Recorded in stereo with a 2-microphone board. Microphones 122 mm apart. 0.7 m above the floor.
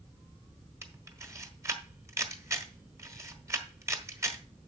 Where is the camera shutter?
25° right (ahead or behind), 1.3 m.